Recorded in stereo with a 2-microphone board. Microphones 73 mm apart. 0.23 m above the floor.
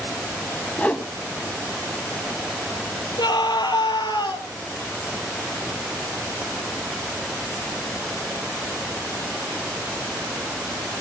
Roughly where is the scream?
Left.